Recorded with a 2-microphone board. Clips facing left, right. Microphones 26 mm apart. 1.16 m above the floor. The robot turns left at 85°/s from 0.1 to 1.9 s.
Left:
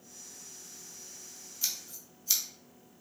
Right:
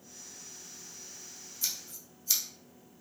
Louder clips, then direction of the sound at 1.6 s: Left 1 dB; 15° left (ahead or behind).